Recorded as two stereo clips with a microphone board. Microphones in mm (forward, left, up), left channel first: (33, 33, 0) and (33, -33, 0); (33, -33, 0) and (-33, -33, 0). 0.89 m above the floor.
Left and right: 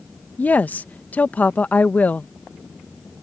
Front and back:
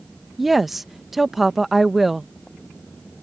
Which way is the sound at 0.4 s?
95° left.